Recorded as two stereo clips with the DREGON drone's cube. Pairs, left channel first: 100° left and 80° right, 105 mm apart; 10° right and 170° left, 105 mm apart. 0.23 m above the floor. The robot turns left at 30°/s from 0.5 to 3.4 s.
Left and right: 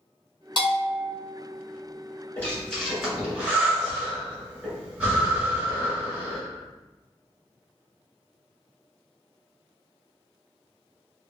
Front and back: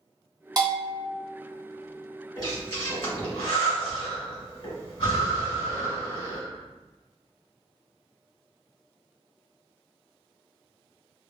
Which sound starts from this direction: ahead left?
Breathing, at 2.4 s.